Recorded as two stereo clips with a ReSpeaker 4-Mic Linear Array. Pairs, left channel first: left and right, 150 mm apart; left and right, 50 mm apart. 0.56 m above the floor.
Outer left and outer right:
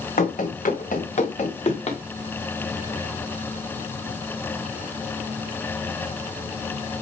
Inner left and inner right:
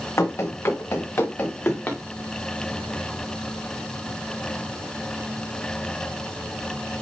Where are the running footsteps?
70° left (ahead or behind), 2 m; by 2.0 s 40° left (ahead or behind), 2.5 m.